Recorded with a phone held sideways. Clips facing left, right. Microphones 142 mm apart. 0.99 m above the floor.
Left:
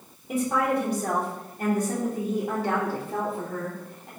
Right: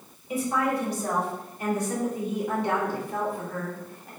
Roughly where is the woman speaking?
Left.